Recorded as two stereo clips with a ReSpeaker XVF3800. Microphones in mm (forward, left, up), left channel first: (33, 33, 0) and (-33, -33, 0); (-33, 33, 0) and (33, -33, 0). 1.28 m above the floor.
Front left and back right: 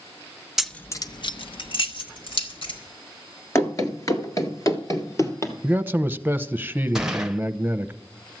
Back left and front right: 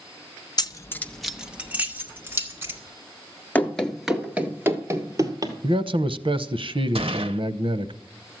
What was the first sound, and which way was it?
Keys jangling, 140° left.